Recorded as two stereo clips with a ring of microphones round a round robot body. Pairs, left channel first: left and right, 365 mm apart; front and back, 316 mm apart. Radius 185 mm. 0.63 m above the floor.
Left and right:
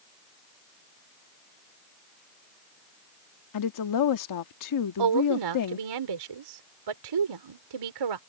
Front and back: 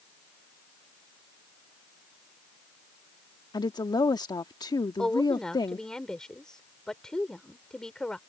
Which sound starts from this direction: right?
A woman speaking, at 5.0 s.